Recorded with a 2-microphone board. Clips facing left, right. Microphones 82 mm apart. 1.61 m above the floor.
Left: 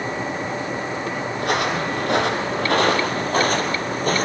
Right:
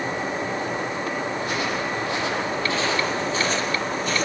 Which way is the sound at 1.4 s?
65° left (ahead or behind).